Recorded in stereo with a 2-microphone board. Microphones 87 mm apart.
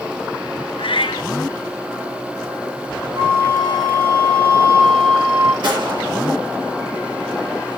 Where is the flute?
55° right (ahead or behind), 4 m.